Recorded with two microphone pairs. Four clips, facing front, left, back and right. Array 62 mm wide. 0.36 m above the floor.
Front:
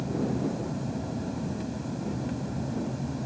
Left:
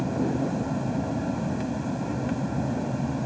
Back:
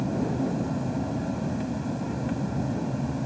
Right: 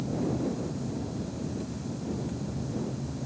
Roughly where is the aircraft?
Left.